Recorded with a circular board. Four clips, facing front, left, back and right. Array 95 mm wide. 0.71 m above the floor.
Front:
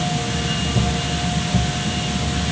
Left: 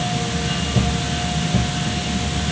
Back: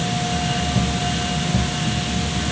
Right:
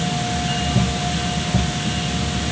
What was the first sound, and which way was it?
Only background noise.